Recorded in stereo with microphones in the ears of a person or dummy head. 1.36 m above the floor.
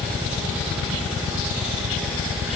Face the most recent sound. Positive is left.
No sound to turn to.